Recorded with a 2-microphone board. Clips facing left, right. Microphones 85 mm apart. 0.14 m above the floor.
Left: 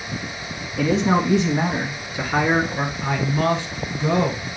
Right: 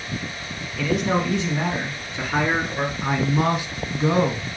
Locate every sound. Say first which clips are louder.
0.8 s a man speaking: left 3 dB; 30° left (ahead or behind), 1.3 m; by 2.9 s centre (ahead or behind), 1.6 m
3.0 s a man speaking: even; 10° right (ahead or behind), 1.5 m